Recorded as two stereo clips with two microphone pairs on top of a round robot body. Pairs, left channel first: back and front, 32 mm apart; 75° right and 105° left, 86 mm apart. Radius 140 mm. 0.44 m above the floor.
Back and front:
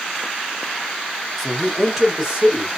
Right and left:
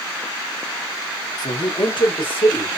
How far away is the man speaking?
About 1.3 m.